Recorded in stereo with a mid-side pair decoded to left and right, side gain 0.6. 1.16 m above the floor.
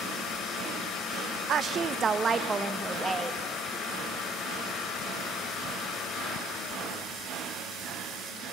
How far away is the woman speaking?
About 0.7 m.